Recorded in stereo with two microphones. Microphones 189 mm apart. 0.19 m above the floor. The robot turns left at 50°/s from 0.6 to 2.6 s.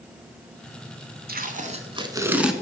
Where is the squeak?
No squeak in this recording.